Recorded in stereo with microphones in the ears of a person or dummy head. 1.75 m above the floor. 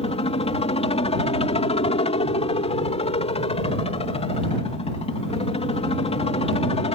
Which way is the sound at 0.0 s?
25° left (ahead or behind).